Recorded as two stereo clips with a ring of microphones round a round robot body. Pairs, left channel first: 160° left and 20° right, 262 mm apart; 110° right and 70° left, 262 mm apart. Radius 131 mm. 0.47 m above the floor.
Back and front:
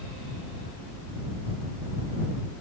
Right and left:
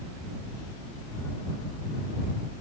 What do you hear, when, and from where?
Only background noise.